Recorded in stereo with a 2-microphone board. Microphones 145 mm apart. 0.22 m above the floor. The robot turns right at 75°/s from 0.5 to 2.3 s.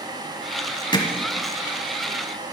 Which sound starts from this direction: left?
Hammering, at 0.9 s.